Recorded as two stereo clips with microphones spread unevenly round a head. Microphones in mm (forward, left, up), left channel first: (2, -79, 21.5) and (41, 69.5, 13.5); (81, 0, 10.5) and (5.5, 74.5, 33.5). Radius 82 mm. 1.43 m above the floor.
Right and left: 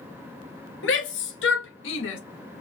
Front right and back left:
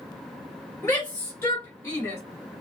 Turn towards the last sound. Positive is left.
turn(degrees=-115)